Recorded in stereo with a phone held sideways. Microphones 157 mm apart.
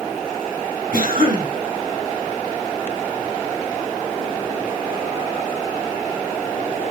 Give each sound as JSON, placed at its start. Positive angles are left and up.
{"t": 0.9, "sound": "a cough", "side_deg": -75, "distance_m": 6.5}